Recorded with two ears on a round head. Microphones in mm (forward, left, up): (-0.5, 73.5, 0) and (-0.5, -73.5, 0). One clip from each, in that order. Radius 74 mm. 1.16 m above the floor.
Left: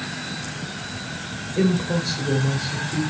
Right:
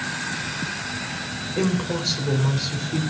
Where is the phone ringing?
I don't hear a phone ringing.